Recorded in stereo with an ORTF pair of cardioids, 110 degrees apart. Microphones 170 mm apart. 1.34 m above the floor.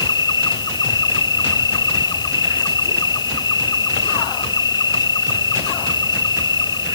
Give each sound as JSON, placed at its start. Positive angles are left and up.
{"t": 0.0, "sound": "an insect", "azimuth_deg": 25}